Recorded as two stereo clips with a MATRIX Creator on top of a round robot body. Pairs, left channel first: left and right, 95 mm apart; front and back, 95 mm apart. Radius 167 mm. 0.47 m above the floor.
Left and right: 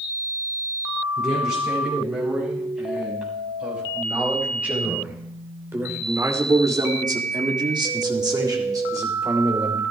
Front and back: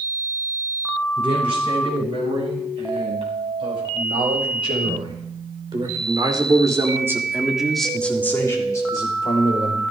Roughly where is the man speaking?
Behind.